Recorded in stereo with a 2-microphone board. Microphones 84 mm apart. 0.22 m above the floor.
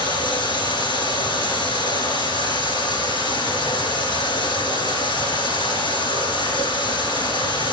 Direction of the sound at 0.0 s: 70° left (ahead or behind).